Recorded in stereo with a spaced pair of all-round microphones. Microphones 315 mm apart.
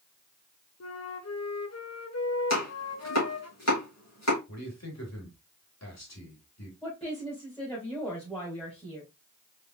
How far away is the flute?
About 0.6 m.